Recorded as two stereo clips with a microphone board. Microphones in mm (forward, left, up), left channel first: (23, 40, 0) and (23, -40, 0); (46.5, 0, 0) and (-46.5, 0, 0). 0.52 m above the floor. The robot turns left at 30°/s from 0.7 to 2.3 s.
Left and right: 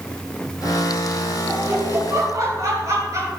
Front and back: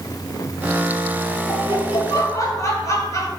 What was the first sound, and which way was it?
Laughter, 25° right.